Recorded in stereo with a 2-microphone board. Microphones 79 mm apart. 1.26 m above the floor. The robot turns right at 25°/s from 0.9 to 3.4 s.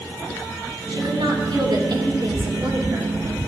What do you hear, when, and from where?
0.9 s a woman speaking: 95° right, 3.5 m; by 3.1 s 40° right, 3.5 m